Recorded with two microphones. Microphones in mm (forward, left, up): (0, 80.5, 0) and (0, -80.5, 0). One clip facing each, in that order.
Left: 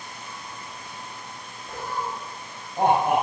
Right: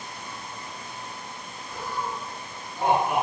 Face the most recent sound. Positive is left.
turn(degrees=60)  # may be behind; listen again after turning